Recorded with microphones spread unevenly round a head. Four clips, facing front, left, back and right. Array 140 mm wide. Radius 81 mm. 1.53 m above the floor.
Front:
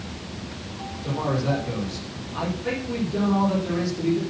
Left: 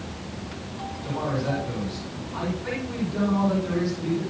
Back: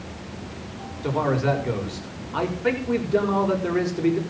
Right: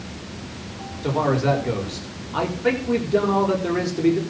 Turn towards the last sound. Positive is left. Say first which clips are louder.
# right 8 dB, back 3 dB
turn(degrees=-115)